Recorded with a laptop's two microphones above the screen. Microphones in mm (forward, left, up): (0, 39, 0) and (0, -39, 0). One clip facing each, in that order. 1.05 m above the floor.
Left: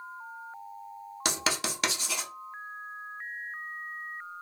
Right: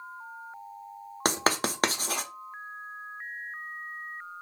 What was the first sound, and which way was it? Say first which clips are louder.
Writing: right 5 dB; 45° right (ahead or behind).